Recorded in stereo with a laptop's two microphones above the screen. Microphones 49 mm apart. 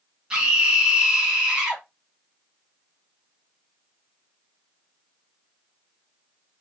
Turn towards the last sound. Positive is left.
turn(degrees=-20)  # may be behind; listen again after turning